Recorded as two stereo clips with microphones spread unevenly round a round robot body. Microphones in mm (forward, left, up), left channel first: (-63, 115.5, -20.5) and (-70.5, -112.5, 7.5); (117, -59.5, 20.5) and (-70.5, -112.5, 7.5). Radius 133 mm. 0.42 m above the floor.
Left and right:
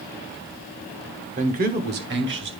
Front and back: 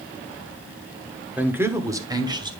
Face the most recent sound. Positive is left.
turn(degrees=-110)